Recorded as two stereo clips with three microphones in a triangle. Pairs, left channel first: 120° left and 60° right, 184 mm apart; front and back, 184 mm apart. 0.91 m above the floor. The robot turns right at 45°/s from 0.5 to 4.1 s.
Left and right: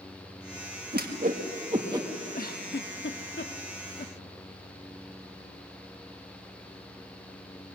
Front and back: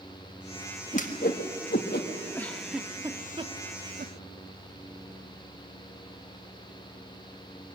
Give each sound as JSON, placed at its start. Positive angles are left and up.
{"t": 0.9, "sound": "a whoosh", "azimuth_deg": -40, "distance_m": 1.7}
{"t": 2.3, "sound": "a giggle", "azimuth_deg": 75, "distance_m": 1.0}